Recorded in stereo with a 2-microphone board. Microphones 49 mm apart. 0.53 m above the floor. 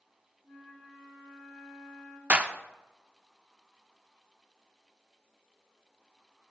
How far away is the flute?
About 3 m.